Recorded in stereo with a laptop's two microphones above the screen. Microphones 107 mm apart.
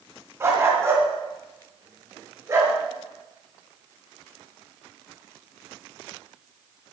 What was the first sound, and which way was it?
A dog barking, 25° right (ahead or behind).